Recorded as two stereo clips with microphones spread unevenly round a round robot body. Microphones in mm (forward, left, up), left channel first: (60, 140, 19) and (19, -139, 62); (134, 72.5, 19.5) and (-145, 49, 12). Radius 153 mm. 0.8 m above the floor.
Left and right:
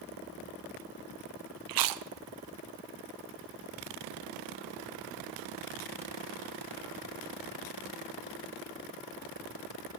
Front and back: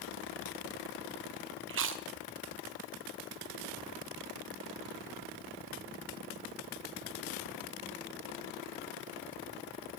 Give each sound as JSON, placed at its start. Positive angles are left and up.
{"t": 1.7, "sound": "chewing", "azimuth_deg": -125, "distance_m": 0.8}